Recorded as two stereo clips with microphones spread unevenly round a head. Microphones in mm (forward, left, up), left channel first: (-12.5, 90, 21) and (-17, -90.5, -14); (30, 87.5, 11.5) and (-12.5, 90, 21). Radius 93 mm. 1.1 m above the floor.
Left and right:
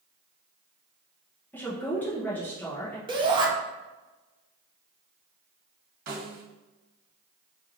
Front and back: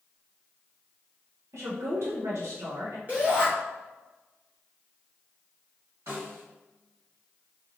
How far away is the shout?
About 0.9 m.